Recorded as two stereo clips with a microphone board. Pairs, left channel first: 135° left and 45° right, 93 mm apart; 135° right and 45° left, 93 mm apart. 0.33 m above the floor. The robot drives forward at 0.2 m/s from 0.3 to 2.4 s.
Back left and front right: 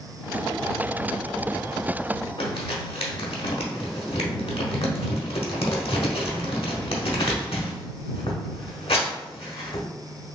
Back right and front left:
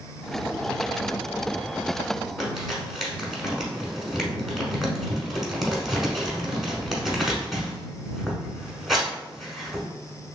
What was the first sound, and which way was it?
Crumpling, 135° left.